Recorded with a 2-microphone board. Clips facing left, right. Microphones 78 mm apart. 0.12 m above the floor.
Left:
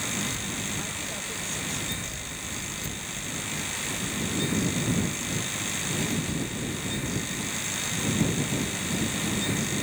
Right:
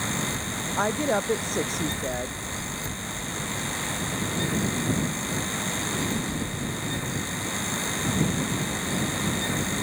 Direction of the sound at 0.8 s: 65° right (ahead or behind).